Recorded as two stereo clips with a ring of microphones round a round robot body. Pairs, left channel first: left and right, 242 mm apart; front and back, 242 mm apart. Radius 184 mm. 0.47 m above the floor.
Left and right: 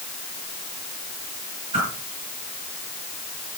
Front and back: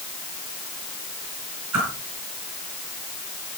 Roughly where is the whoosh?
Behind.